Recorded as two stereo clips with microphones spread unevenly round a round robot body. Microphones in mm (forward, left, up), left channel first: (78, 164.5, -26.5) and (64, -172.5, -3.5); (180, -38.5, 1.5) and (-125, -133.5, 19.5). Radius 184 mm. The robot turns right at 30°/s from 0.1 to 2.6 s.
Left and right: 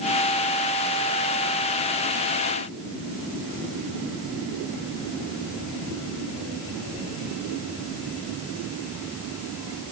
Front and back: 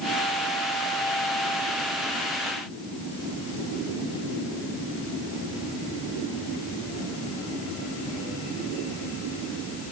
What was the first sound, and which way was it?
Only background noise.